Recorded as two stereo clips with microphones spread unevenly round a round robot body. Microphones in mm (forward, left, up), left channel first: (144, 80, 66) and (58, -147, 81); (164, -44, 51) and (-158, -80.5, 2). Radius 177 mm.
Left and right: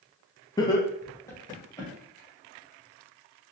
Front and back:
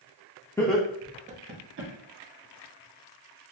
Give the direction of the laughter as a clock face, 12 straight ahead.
9 o'clock.